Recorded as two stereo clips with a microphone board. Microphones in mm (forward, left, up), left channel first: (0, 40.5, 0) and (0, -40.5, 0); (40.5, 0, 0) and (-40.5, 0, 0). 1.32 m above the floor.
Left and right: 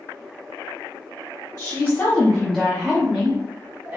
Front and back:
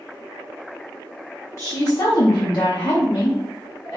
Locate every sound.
1.6 s a woman speaking: 50° left, 0.6 m; by 4.0 s 35° right, 1.2 m